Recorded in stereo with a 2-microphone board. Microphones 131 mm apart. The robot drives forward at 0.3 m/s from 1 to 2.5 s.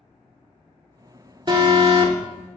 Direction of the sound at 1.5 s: 35° right (ahead or behind).